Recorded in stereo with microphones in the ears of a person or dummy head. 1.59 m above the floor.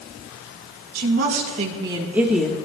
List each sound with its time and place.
0.9 s a woman speaking: 60° right (ahead or behind), 2 m; by 2.5 s 5° left (ahead or behind), 1.7 m